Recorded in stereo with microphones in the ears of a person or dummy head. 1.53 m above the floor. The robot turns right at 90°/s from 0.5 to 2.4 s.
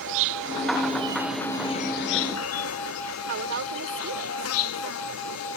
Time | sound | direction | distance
0.0 | an insect | 80° right | ?
3.3 | a woman speaking | 80° right | ?